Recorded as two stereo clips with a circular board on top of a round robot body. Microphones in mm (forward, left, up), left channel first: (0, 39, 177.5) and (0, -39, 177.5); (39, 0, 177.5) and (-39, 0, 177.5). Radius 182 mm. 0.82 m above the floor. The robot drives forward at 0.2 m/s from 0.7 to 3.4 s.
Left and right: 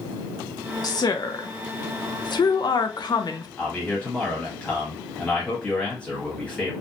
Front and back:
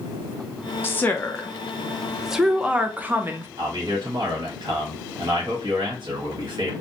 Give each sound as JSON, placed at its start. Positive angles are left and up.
{"t": 0.8, "sound": "a woman speaking", "azimuth_deg": 60, "distance_m": 0.7}
{"t": 3.6, "sound": "a man speaking", "azimuth_deg": 165, "distance_m": 1.5}